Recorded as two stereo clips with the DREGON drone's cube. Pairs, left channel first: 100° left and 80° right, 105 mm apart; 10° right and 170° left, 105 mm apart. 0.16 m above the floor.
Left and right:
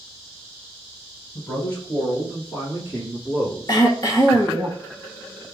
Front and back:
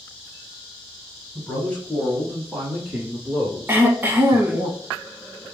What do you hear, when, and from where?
1.4 s a man speaking: 45° left, 1.7 m; by 4.7 s 155° left, 1.9 m
3.7 s throat clearing: 110° left, 0.8 m